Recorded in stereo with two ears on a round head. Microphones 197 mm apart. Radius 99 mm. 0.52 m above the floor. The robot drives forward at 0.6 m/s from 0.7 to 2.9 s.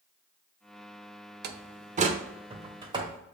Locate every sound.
1.4 s a door slam: 45° right (ahead or behind), 0.6 m; by 3.2 s 20° right (ahead or behind), 1.3 m